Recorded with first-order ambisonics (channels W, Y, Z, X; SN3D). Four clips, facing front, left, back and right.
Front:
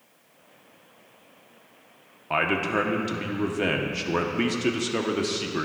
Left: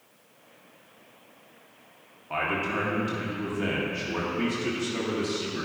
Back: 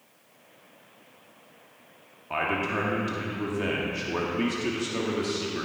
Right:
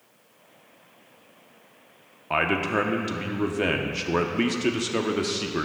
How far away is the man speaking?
About 0.8 m.